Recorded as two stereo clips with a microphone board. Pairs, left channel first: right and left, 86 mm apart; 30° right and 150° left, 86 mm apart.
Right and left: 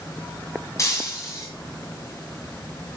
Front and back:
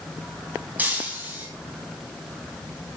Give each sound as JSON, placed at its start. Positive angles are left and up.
{"t": 0.8, "sound": "breaking glass", "azimuth_deg": -140, "distance_m": 2.5}